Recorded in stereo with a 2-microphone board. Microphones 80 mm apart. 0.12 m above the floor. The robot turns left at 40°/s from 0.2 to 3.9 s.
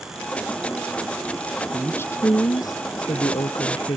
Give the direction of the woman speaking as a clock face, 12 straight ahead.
7 o'clock.